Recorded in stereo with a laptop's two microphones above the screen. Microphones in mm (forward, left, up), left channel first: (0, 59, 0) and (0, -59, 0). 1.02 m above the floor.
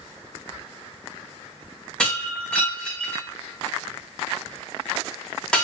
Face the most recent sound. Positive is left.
turn(degrees=10)  # may be behind; listen again after turning